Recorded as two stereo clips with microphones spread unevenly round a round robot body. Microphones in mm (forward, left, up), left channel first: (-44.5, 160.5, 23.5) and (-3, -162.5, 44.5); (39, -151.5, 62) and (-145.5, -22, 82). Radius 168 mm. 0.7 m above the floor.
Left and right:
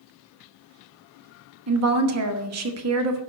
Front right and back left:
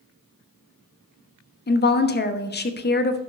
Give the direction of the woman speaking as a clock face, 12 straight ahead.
2 o'clock.